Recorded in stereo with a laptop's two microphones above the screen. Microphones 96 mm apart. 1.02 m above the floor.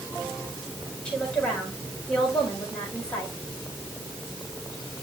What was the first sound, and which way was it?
A woman speaking, 10° left (ahead or behind).